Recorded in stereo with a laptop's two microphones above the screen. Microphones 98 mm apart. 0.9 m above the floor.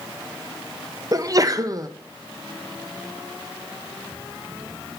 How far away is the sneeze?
About 0.5 m.